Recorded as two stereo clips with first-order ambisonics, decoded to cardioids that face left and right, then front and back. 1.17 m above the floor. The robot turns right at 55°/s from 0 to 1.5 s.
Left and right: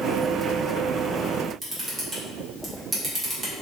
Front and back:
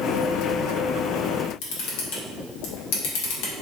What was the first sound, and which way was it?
A camera shutter, 10° right.